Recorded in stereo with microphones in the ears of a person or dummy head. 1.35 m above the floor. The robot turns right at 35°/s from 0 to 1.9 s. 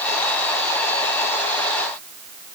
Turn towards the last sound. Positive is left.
No sound to turn to.